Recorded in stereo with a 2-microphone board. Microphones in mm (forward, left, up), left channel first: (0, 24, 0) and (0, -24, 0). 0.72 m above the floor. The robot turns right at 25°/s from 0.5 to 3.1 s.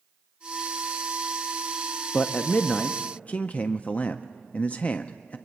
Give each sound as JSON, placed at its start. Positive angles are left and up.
{"t": 2.1, "sound": "a man speaking", "side_deg": 20, "distance_m": 0.5}